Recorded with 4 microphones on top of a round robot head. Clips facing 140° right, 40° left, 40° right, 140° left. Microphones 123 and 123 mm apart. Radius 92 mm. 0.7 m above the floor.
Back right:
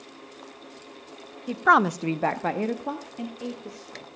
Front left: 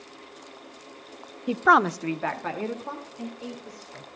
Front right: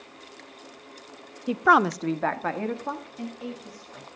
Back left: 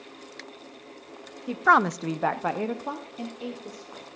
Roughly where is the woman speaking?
Ahead.